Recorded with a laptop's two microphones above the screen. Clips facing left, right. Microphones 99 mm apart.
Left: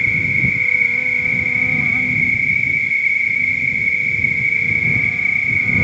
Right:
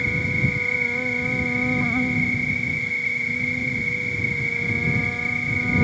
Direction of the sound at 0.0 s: 20° right (ahead or behind).